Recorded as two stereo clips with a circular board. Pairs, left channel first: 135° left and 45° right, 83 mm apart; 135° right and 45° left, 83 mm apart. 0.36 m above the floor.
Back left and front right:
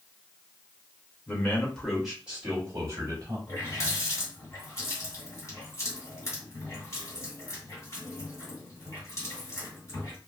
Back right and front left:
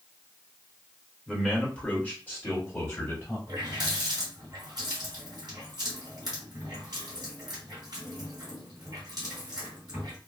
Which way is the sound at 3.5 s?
85° left.